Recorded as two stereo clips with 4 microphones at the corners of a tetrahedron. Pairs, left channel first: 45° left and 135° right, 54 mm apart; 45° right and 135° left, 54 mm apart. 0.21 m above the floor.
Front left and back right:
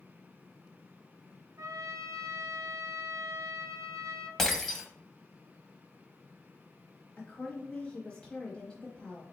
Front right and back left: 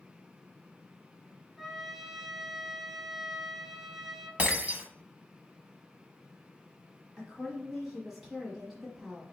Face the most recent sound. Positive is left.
turn(degrees=65)